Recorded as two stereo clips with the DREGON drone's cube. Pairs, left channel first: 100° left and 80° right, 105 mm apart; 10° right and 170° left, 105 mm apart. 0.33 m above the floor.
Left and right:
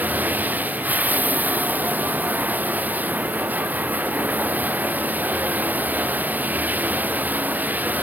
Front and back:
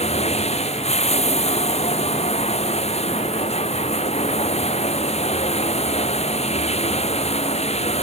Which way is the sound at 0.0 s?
5° right.